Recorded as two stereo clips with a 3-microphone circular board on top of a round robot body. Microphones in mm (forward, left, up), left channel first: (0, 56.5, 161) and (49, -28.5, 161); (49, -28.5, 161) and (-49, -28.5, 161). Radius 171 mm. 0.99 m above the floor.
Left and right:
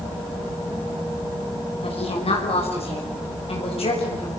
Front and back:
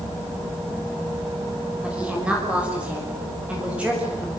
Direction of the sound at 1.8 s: 100° left.